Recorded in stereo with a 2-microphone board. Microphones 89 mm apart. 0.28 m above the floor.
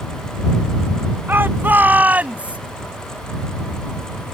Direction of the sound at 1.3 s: 25° right (ahead or behind).